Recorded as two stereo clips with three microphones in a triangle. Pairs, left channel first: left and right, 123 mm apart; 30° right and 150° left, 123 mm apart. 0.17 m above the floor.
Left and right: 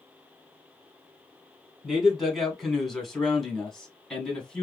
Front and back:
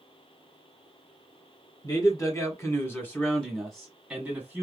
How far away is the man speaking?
About 1.9 m.